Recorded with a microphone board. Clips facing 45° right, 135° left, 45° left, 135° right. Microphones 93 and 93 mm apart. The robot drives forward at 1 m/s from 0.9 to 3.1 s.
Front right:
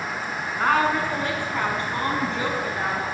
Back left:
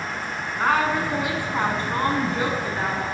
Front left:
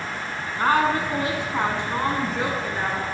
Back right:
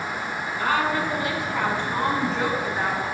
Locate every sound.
0.6 s a woman speaking: 50° left, 1.5 m; by 3.0 s 155° left, 2.0 m